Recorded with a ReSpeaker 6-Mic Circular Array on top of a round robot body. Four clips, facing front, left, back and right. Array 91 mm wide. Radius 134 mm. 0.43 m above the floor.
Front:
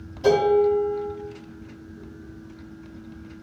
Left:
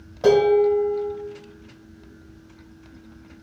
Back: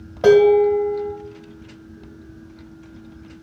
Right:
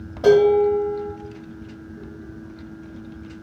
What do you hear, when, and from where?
0.2 s dishes clattering: 175° left, 1.4 m